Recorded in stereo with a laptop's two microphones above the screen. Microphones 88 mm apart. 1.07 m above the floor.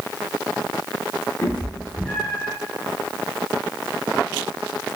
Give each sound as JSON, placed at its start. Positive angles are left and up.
{"t": 1.4, "sound": "a cat meowing", "side_deg": 20, "distance_m": 0.7}